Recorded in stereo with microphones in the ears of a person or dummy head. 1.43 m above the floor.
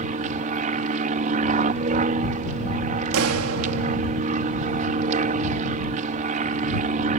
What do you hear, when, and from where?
0.0 s an aircraft: 40° right (ahead or behind)
3.1 s a clap: 80° right